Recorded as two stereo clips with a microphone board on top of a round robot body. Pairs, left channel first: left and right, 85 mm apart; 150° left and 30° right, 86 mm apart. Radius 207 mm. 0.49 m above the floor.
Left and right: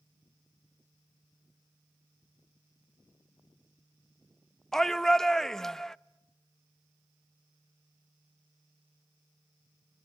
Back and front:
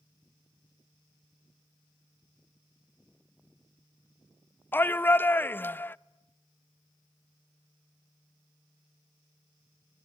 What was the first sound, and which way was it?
A shout, 170° left.